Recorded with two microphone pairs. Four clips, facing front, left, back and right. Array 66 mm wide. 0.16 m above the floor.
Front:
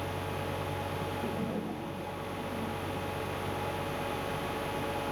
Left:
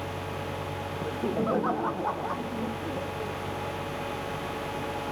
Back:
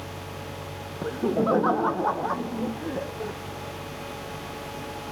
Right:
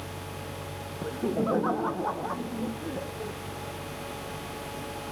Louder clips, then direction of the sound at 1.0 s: Right 1 dB, back 10 dB; 170° left.